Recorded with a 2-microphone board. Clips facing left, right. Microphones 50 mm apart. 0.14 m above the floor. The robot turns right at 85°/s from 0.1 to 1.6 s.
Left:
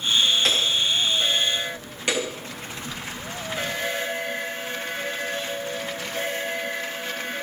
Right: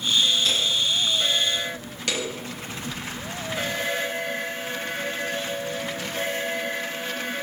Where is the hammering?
65° left, 9.5 m; by 3.8 s 160° left, 9.5 m.